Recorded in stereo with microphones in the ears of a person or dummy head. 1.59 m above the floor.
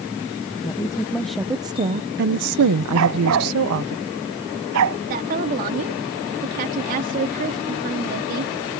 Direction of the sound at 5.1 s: 45° right (ahead or behind).